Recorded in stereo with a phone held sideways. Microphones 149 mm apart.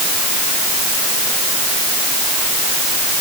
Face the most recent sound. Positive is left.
No sound to turn to.